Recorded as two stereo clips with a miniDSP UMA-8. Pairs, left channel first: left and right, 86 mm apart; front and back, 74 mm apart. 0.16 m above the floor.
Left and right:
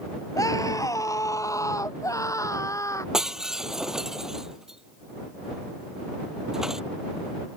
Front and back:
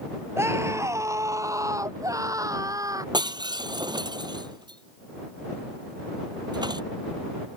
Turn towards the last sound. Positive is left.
turn(degrees=-175)